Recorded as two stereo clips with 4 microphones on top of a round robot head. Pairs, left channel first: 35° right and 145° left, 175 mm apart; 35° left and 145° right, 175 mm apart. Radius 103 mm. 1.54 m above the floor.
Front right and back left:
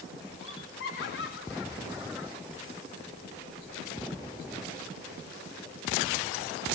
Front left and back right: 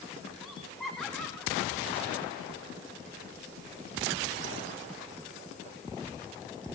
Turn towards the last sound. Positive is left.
turn(degrees=-40)